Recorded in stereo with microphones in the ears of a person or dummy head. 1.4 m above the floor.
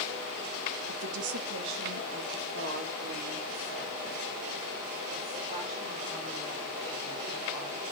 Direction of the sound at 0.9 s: 85° right.